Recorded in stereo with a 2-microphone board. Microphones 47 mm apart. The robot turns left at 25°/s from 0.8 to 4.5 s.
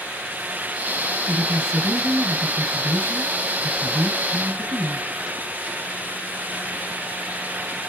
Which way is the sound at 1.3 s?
30° right.